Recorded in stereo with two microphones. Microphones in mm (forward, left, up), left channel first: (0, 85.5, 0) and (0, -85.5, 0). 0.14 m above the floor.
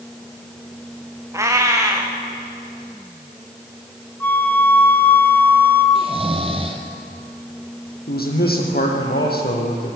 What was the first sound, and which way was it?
A cat meowing, 15° right (ahead or behind).